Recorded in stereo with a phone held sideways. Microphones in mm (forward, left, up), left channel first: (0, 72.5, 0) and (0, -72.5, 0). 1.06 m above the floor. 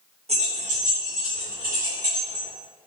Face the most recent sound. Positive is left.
turn(degrees=-85)